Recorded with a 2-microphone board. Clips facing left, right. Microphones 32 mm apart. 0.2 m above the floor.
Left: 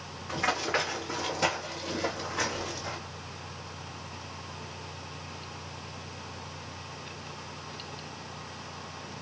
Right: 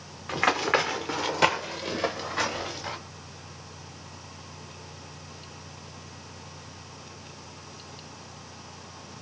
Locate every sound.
0.3 s running footsteps: 70° right (ahead or behind), 1.2 m; by 3.0 s 45° right (ahead or behind), 1.7 m